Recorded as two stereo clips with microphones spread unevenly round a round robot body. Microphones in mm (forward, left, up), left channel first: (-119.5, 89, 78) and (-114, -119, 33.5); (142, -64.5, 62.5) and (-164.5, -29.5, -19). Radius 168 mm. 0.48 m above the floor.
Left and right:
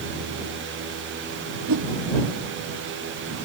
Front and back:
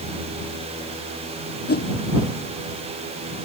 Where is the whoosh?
65° right.